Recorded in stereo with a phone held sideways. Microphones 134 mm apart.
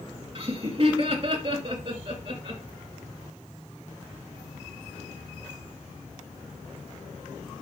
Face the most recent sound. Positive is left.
turn(degrees=-40)  # may be behind; listen again after turning